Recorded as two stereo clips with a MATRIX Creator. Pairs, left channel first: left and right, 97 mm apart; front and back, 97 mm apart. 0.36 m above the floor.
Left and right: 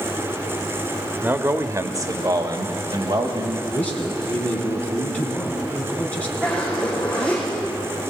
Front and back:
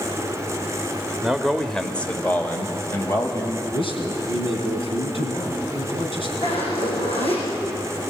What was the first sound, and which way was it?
A man speaking, 110° right.